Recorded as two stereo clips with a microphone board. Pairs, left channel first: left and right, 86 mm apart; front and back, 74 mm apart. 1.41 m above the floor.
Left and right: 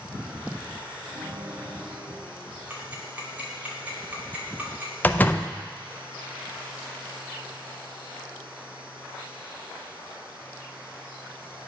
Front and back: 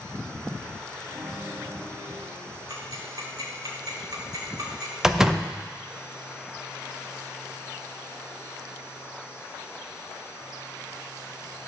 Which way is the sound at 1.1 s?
85° right.